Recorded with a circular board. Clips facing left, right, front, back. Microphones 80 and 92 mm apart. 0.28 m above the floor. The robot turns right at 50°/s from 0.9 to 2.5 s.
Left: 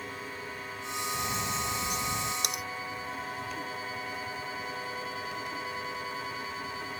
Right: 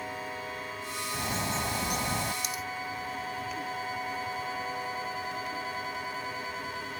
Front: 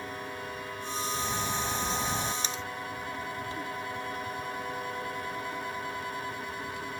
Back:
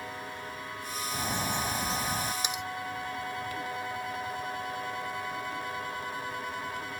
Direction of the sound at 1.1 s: 140° right.